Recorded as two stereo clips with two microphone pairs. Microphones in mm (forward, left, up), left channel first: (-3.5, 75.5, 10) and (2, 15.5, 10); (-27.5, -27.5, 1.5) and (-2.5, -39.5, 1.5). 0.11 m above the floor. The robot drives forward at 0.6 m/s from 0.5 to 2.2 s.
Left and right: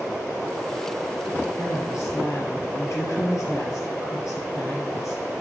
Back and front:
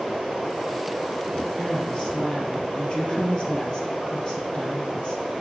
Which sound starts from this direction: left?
A woman speaking, at 1.6 s.